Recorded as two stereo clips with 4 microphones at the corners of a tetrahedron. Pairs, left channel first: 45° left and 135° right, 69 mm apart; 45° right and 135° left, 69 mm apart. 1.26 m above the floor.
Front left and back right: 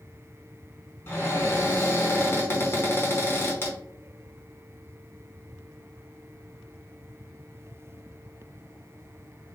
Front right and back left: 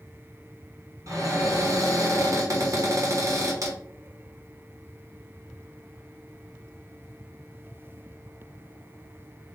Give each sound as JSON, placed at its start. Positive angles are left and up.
{"t": 1.1, "sound": "a cupboard door", "azimuth_deg": 100, "distance_m": 1.1}